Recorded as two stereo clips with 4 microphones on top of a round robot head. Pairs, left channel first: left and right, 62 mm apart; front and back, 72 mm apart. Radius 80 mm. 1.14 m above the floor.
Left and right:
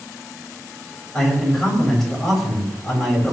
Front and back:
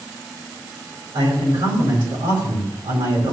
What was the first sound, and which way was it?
A man speaking, 175° left.